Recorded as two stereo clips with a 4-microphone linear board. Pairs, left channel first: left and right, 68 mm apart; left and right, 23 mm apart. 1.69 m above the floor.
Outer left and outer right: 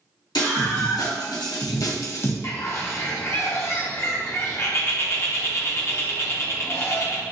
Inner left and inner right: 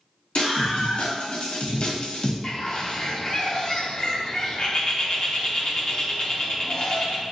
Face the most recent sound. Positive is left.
turn(degrees=40)  # may be behind; listen again after turning